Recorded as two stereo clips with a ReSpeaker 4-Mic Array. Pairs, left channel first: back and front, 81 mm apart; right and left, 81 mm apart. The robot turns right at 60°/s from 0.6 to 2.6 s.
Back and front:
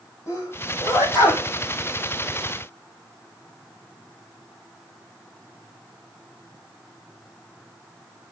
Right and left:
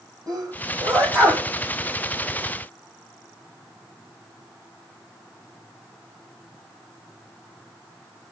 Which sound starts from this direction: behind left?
A sneeze, at 0.3 s.